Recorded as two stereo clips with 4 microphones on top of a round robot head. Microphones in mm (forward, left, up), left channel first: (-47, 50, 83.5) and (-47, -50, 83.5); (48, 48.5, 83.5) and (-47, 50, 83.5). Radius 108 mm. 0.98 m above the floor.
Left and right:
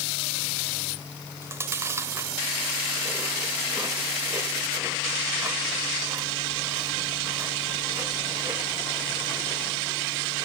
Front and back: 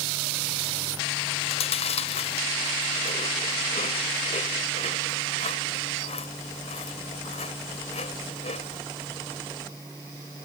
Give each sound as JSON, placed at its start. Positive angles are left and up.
{"t": 1.4, "sound": "chewing", "azimuth_deg": -20}